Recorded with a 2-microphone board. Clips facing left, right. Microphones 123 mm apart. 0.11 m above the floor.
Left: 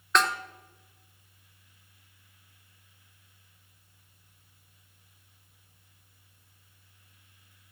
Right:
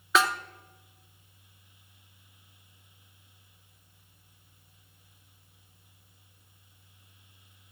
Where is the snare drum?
5° right (ahead or behind), 0.7 m.